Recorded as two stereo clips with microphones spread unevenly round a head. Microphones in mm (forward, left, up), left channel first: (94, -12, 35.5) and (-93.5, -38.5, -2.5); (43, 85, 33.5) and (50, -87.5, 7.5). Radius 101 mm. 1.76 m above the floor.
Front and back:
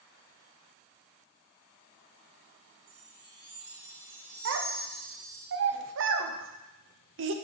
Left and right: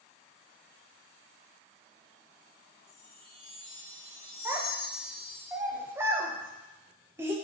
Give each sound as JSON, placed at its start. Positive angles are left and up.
{"t": 2.9, "sound": "a chime", "azimuth_deg": -165, "distance_m": 2.0}
{"t": 4.5, "sound": "a child speaking", "azimuth_deg": -170, "distance_m": 0.7}